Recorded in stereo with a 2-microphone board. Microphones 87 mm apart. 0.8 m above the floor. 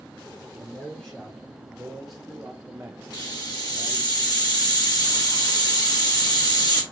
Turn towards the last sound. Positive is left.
turn(degrees=45)  # may be behind; listen again after turning